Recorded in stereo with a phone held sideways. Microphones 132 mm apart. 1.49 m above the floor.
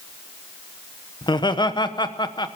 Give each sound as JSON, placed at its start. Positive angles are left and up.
{"t": 1.2, "sound": "laughter", "side_deg": 35, "distance_m": 1.1}